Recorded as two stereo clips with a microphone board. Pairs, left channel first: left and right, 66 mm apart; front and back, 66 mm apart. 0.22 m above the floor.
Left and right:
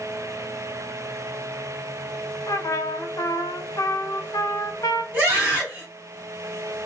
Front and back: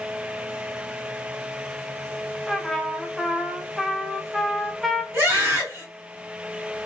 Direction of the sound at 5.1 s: 140° right.